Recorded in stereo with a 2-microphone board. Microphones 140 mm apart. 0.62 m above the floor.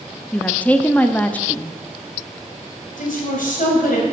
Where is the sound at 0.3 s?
10° left (ahead or behind), 0.7 m.